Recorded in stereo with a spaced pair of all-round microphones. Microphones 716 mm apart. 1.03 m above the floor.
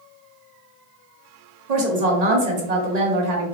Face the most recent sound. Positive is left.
turn(degrees=-65)  # may be behind; listen again after turning